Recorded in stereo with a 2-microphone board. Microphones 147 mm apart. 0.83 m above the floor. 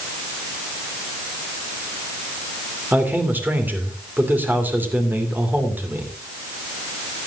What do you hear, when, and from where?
2.9 s a man speaking: 10° right (ahead or behind), 2.5 m